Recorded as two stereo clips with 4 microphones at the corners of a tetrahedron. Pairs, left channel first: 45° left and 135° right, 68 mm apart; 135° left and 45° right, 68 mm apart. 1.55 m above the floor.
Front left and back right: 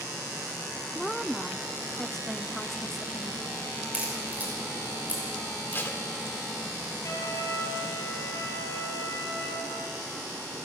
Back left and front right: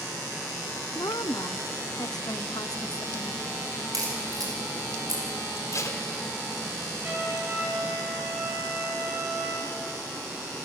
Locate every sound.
0.9 s a woman speaking: 130° left, 0.8 m
3.9 s a crack: 65° right, 6 m
5.7 s tape being pulled: 100° left, 2.5 m
7.0 s a trumpet: 15° left, 6 m